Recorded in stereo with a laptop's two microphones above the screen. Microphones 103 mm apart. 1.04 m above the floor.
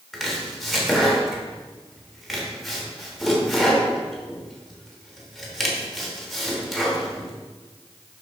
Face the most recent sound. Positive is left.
turn(degrees=0)  # may be behind; listen again after turning